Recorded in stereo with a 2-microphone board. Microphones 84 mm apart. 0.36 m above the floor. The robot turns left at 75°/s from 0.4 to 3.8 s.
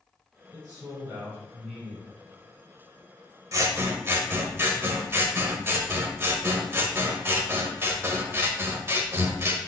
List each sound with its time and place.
0.5 s a man speaking: 95° right, 1.7 m; by 2.1 s 150° left, 1.7 m
3.5 s scissors: 45° right (ahead or behind), 0.6 m; by 9.6 s 30° right (ahead or behind), 0.6 m